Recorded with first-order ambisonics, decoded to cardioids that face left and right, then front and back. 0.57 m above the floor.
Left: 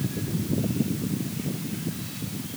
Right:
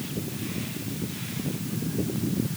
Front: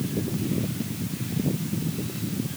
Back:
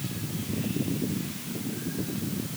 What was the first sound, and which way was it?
Only background noise.